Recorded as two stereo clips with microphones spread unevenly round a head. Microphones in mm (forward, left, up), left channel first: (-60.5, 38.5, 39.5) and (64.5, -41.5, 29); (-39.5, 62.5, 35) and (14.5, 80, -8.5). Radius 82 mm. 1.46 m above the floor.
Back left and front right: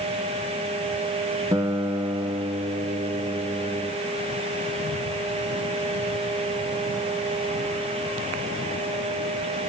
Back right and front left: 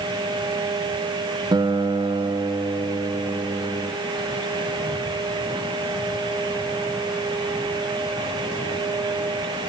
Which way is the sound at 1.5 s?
40° left.